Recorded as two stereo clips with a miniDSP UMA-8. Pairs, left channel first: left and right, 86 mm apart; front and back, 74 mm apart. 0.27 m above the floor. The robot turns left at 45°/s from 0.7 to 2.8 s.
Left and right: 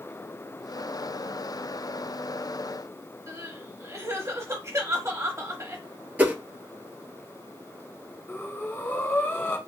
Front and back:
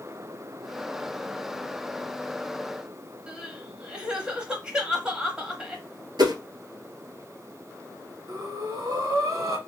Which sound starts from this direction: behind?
A whoosh, at 6.2 s.